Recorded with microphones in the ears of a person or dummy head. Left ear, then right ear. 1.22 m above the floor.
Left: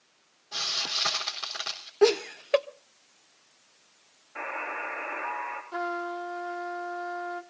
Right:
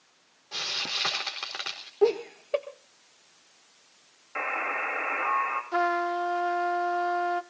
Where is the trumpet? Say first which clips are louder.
Right 6 dB; 35° right (ahead or behind), 0.7 m.